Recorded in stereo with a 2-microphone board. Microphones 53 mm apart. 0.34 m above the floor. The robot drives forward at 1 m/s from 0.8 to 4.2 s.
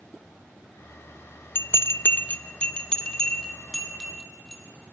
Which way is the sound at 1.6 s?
45° left (ahead or behind).